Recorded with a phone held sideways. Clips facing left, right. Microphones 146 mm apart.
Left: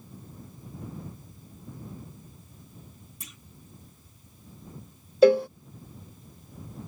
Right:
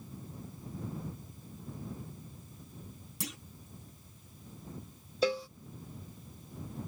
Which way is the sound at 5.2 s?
60° left (ahead or behind).